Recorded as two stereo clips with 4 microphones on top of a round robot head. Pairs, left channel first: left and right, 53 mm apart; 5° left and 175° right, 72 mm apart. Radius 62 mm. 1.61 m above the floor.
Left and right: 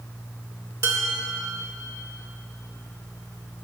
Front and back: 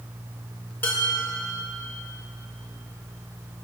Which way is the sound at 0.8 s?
65° right.